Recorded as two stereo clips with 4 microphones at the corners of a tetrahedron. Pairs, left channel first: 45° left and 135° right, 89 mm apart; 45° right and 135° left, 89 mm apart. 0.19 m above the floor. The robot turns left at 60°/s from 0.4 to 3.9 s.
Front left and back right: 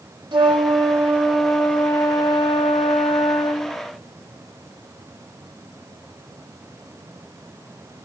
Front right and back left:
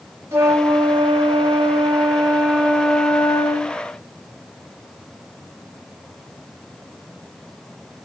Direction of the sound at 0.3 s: 165° right.